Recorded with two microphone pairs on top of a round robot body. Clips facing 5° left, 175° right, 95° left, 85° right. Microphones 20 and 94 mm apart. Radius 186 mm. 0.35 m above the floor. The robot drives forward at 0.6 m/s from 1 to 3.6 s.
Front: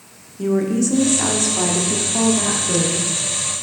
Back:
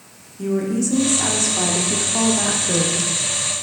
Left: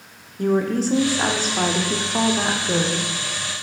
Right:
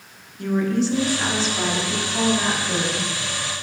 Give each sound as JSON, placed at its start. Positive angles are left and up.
{"t": 0.4, "sound": "a woman speaking", "azimuth_deg": 75, "distance_m": 1.2}